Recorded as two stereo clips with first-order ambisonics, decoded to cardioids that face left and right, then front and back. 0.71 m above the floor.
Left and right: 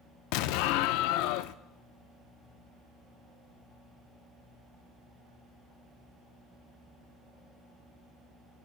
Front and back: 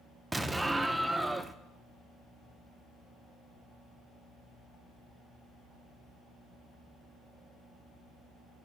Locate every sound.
0.3 s an explosion: 95° left, 0.5 m